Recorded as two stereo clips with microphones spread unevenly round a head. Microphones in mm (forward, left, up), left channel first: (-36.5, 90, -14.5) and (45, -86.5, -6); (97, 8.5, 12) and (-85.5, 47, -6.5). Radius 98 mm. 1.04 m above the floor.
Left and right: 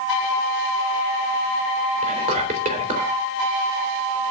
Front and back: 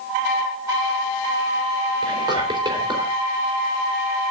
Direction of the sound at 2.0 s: 120° right.